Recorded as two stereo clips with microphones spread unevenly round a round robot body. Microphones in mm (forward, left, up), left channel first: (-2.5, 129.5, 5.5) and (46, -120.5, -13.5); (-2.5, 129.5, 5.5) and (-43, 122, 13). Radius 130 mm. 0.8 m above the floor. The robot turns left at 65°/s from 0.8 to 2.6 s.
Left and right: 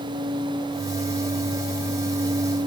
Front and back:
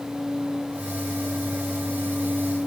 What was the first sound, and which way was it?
Only background noise.